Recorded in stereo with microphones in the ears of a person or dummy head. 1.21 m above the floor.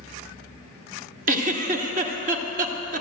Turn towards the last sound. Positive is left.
turn(degrees=-45)  # may be behind; listen again after turning